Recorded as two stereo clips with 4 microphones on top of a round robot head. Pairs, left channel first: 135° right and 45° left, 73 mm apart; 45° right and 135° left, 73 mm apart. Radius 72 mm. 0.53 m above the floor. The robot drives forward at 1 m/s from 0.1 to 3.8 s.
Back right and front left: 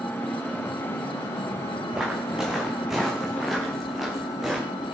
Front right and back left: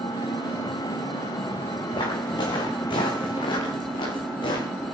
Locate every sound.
0.0 s an engine running: 65° right, 3.5 m; by 5.0 s 125° right, 4 m
1.9 s footsteps: 35° right, 3.5 m